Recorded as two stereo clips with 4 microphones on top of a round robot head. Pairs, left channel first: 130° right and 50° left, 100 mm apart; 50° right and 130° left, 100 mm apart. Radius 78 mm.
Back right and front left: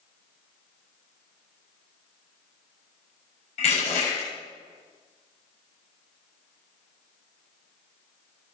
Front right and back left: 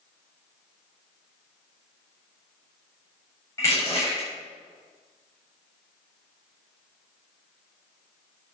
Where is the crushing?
115° right, 7 m.